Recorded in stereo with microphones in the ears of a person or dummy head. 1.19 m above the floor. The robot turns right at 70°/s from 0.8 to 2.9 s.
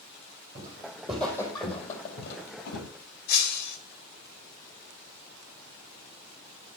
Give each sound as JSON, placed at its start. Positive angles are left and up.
{"t": 0.6, "sound": "footsteps", "side_deg": -15, "distance_m": 3.5}
{"t": 3.3, "sound": "breaking glass", "side_deg": 40, "distance_m": 1.2}